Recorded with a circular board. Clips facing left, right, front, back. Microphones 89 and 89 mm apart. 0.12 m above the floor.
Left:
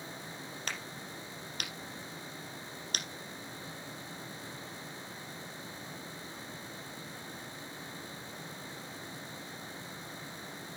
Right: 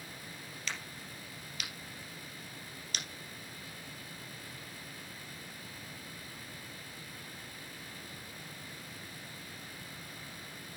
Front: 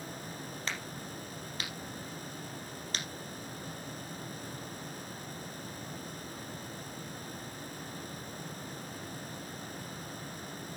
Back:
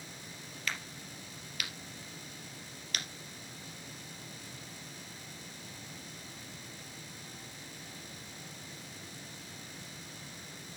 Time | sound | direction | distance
0.7 | a crack | 55° left | 3 m